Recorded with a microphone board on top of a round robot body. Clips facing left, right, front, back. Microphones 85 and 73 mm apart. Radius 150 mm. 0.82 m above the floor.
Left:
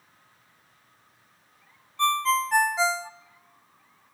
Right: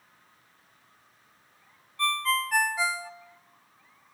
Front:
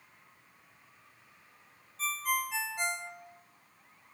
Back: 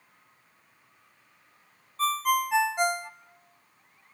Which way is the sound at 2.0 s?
155° left.